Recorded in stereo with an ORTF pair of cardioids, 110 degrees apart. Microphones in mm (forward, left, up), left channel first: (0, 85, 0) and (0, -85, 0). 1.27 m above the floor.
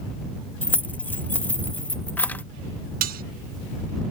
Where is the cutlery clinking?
60° right.